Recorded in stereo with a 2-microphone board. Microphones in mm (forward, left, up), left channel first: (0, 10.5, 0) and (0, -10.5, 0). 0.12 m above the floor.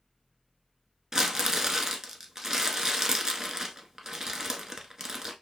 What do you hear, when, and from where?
1.1 s crumpling: 25° right (ahead or behind), 0.8 m